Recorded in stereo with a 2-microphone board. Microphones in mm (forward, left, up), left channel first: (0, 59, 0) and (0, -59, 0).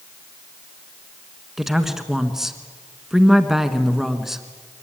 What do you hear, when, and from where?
1.6 s a woman speaking: 5° right (ahead or behind), 1.5 m